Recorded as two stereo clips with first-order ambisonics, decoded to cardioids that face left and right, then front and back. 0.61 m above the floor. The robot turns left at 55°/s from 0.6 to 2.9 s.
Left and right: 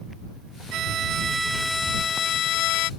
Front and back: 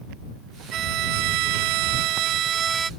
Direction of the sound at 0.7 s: 130° right.